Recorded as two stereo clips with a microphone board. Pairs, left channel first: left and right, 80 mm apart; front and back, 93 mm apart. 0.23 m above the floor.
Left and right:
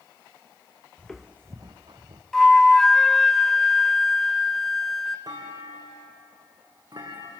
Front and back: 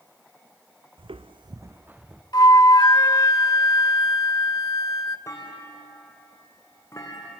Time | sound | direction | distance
1.0 | footsteps | 165° left | 0.7 m
2.3 | a flute | 5° left | 0.7 m
5.3 | a clunk | 55° right | 4 m